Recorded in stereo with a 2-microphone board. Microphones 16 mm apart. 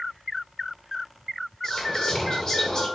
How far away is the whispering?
About 0.6 m.